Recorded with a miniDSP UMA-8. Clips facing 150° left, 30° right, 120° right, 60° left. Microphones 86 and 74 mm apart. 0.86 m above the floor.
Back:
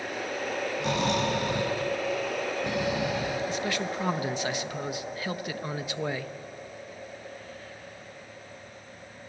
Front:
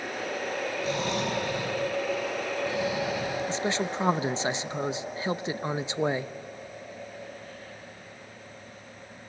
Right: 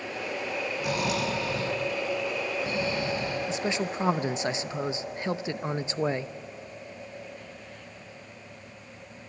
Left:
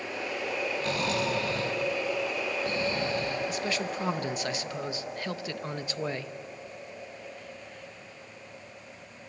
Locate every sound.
0.8 s snoring: 165° left, 9.5 m
3.5 s a man speaking: 70° right, 0.7 m